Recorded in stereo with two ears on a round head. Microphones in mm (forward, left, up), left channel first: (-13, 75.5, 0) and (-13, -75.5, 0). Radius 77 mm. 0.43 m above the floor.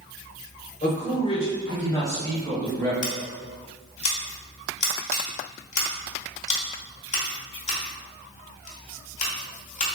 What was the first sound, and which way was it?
A man speaking, 45° left (ahead or behind).